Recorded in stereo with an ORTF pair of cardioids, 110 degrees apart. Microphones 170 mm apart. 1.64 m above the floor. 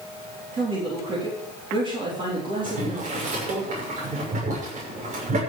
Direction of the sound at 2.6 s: 50° right.